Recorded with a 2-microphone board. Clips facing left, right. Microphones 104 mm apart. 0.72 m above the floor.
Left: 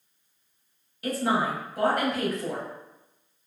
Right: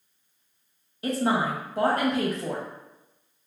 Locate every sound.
1.0 s a woman speaking: 30° right (ahead or behind), 0.9 m